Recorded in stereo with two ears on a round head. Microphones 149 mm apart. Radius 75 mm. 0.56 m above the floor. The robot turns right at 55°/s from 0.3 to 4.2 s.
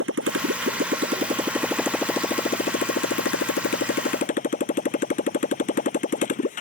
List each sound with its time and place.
0.0 s a motorcycle: 85° right; by 6.6 s 130° left